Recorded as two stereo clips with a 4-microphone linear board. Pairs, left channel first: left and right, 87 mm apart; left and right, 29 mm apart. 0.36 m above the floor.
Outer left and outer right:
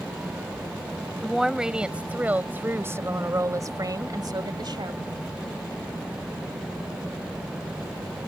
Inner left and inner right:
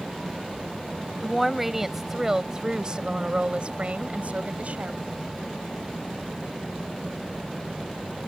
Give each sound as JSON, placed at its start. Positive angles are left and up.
{"t": 1.2, "sound": "a woman speaking", "side_deg": -5}